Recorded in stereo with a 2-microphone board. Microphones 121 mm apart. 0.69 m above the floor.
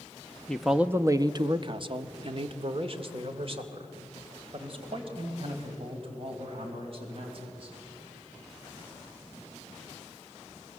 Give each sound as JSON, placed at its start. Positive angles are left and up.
{"t": 0.5, "sound": "a man speaking", "side_deg": 10, "distance_m": 0.6}